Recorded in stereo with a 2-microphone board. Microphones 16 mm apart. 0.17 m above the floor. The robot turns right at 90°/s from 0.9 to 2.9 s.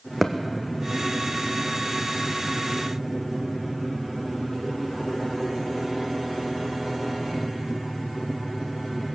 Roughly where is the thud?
Centre.